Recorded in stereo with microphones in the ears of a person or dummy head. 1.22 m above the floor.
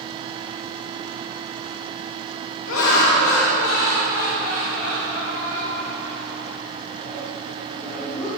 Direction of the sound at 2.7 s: 70° left (ahead or behind).